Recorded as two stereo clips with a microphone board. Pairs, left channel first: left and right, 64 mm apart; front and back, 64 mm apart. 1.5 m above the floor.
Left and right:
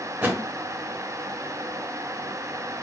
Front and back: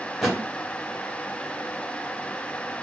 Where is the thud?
85° right, 1.2 m.